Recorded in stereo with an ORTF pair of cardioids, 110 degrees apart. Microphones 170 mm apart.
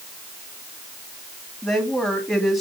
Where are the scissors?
No scissors in this recording.